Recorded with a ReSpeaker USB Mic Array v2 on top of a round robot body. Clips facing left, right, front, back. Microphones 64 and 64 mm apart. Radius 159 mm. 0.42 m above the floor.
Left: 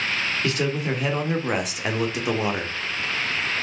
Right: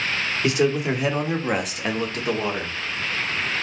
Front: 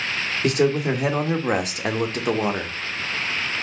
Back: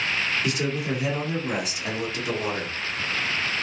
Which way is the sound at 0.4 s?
15° right.